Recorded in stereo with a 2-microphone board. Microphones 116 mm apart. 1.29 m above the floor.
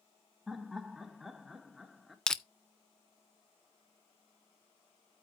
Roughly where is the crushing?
Centre.